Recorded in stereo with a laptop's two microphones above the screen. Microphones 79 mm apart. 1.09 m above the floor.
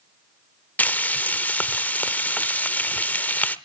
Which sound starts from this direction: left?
Frying, at 0.8 s.